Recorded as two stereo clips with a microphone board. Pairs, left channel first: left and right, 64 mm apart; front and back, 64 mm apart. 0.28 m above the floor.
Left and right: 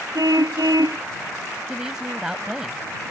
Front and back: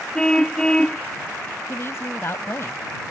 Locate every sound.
0.1 s a car horn: 80° right
1.7 s a woman speaking: 15° right